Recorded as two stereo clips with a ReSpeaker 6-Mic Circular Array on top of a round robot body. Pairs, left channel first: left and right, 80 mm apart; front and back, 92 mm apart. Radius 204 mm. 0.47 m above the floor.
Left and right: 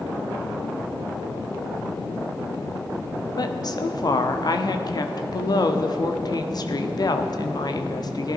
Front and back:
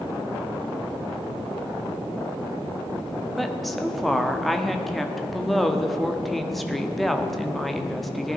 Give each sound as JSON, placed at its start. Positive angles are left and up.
{"t": 3.4, "sound": "a woman speaking", "azimuth_deg": 90, "distance_m": 1.5}